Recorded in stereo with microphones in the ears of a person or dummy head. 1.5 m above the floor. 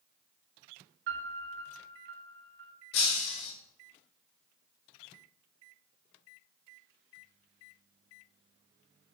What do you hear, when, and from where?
1.1 s a piano: 60° right (ahead or behind), 1.5 m
2.9 s breaking glass: 50° left (ahead or behind), 1.7 m